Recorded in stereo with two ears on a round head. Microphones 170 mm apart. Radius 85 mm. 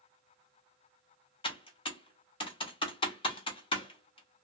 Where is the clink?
I don't hear a clink.